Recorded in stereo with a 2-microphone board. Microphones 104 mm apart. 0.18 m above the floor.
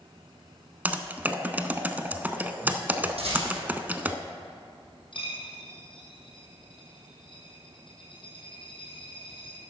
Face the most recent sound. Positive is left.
turn(degrees=55)  # may be behind; listen again after turning